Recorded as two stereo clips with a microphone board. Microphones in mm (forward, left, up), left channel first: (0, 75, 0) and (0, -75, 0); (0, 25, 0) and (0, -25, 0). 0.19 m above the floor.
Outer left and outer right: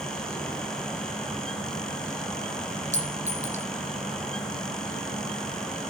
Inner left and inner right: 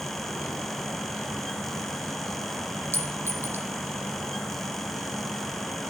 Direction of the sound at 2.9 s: 55° right (ahead or behind).